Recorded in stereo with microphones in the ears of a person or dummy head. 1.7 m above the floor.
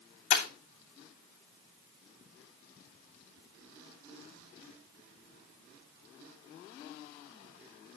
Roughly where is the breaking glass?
Left.